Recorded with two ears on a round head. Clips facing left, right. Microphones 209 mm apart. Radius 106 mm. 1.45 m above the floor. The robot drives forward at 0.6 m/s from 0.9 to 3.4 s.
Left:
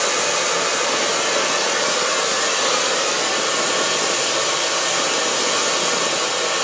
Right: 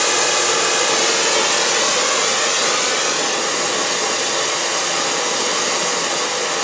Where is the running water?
55° right (ahead or behind), 0.9 m; by 6.6 s 30° right (ahead or behind), 1.6 m.